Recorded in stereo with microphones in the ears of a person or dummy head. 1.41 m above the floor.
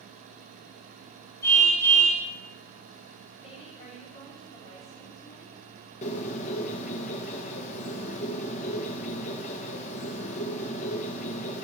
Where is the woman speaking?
30° left (ahead or behind), 5 m.